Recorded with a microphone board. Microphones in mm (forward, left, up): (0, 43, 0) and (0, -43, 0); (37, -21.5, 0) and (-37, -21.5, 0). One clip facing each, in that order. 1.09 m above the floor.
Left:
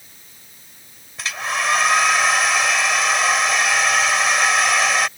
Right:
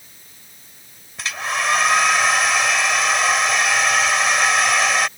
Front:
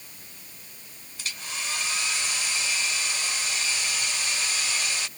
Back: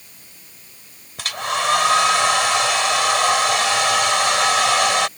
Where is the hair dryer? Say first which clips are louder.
Even, back 15 dB; straight behind.